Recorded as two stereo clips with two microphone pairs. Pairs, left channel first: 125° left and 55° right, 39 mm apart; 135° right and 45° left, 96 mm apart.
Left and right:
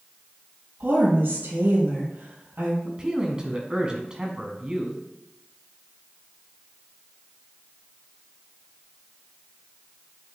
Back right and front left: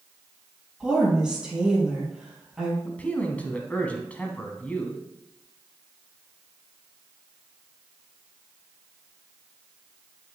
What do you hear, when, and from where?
0.8 s a woman speaking: 40° right, 3.5 m
2.9 s a man speaking: 85° right, 1.1 m